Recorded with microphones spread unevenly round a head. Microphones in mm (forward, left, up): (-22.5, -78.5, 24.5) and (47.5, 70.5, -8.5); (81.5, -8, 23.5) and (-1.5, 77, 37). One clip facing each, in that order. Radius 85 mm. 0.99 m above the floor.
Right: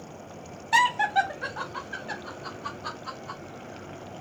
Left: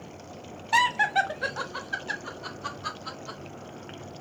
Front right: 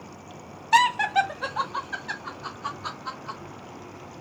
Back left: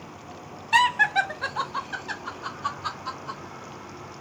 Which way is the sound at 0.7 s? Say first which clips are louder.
Right 2 dB, front right 2 dB; 20° right.